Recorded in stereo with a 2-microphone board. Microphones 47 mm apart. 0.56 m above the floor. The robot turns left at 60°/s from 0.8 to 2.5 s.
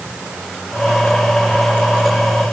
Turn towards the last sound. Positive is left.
No sound to turn to.